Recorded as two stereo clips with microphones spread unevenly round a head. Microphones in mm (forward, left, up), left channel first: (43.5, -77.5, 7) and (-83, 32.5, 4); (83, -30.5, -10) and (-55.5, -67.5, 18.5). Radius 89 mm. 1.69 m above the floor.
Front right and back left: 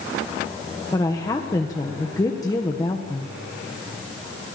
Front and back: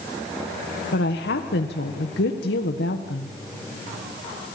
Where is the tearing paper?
No tearing paper in this recording.